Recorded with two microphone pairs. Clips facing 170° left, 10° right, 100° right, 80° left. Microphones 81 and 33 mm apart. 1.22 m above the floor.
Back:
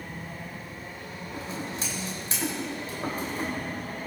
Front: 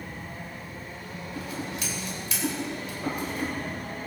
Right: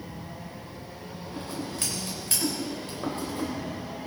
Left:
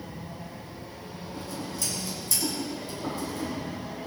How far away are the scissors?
About 4 m.